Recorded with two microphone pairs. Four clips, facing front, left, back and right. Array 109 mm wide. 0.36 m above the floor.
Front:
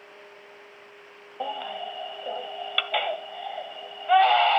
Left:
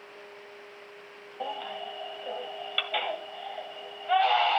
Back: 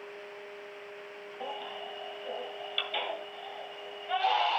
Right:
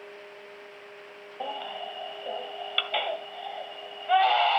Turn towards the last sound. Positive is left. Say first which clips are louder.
# even, front 8 dB
turn(degrees=-10)